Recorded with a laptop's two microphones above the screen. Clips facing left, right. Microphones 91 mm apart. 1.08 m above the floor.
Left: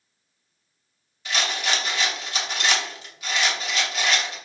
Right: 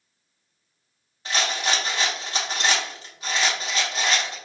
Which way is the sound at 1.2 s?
35° right (ahead or behind).